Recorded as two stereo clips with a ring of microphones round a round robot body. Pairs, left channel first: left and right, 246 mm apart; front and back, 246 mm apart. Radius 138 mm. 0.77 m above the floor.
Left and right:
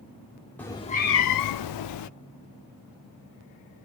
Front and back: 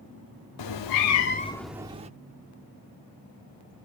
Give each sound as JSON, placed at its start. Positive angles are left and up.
{"t": 0.6, "sound": "a cat meowing", "azimuth_deg": 5, "distance_m": 0.7}